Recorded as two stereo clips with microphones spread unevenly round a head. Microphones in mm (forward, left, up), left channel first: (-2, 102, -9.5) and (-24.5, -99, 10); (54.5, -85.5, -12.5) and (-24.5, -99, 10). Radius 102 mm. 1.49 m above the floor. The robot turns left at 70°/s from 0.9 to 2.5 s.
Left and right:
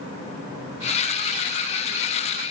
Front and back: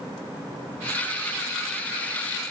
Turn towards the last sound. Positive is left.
No sound to turn to.